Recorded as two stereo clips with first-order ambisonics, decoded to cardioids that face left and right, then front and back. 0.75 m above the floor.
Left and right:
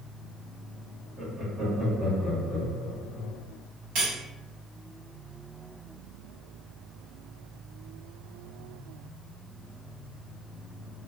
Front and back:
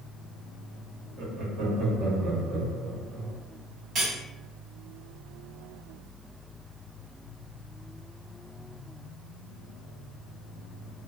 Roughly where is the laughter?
Behind.